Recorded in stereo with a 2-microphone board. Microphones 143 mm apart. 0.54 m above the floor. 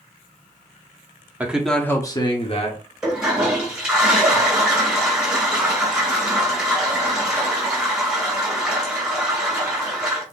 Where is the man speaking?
10° right (ahead or behind), 0.7 m; by 2.8 s 50° left (ahead or behind), 1.0 m.